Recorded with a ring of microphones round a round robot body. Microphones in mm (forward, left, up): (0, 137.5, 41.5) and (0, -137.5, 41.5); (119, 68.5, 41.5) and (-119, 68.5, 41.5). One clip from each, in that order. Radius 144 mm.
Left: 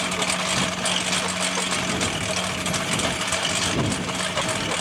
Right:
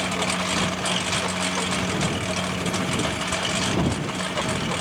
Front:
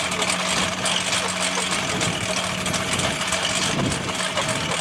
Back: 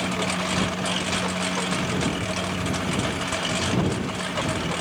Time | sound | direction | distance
0.0 | a lawn mower | 20° left | ?